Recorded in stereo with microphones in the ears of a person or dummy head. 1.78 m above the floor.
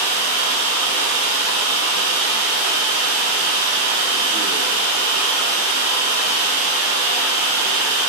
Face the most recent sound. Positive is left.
turn(degrees=-60)  # may be behind; listen again after turning